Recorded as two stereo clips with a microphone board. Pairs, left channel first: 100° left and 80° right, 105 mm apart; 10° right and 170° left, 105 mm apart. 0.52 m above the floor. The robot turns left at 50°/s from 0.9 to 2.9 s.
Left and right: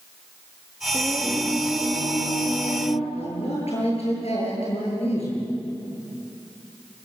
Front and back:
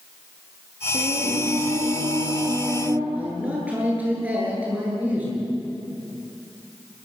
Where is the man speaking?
95° left, 10 m.